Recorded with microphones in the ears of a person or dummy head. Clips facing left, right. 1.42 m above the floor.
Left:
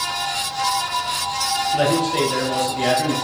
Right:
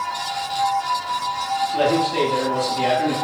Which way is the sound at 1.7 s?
20° left (ahead or behind).